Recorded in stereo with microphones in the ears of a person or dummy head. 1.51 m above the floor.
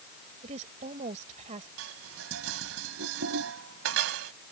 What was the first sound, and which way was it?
A woman speaking, 40° right (ahead or behind).